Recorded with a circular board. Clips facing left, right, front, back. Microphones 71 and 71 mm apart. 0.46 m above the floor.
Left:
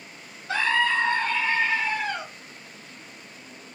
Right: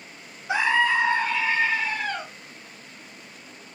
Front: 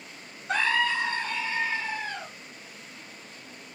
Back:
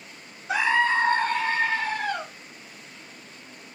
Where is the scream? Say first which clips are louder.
Right 2 dB, back 4 dB; 95° right, 0.7 m; by 2.2 s 175° right, 2 m.